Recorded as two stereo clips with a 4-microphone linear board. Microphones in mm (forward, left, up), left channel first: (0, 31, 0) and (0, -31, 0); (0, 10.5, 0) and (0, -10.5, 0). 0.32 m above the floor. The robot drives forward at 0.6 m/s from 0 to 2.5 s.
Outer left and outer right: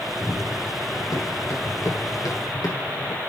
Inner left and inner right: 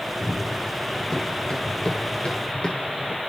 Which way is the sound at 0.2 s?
50° left (ahead or behind).